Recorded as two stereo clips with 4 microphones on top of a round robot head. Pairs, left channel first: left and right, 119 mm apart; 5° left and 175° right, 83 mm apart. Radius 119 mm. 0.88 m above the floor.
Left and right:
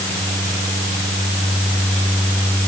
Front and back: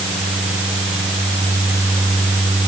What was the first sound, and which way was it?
Only background noise.